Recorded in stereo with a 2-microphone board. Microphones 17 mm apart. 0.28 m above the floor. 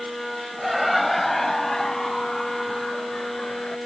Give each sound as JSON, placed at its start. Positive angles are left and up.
{"t": 0.6, "sound": "laughter", "side_deg": -10}